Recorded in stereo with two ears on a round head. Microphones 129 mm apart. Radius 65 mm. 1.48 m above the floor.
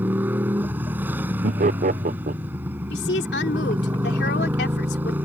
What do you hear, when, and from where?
0.0 s a motorcycle: 15° right (ahead or behind)
1.4 s laughter: 50° right (ahead or behind)
2.9 s a woman speaking: 85° left